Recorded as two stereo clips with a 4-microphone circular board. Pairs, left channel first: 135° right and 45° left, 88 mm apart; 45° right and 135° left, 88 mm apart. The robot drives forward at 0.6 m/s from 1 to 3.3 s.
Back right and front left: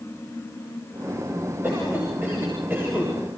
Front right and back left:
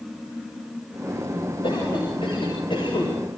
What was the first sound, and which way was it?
A cough, 20° right.